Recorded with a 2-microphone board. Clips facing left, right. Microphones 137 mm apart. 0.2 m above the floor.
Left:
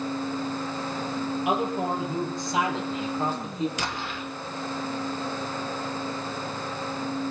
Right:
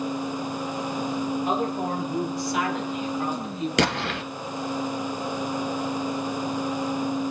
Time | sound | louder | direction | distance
1.4 | a man speaking | even | 15° left (ahead or behind) | 6 m
3.8 | an explosion | right 8 dB | 75° right (ahead or behind) | 1.1 m